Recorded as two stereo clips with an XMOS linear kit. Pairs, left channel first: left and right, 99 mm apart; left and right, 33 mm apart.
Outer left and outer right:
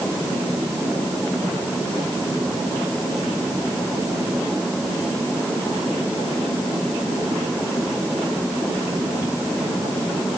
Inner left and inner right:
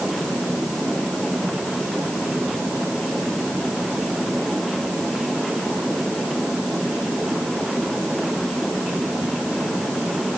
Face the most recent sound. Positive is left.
No sound to turn to.